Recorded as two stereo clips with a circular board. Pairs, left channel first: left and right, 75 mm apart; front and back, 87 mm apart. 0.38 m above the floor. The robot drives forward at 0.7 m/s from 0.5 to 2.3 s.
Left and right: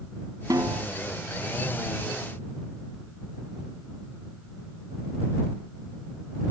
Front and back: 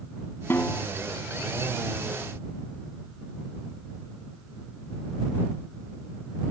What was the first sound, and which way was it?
A snare drum, 60° right.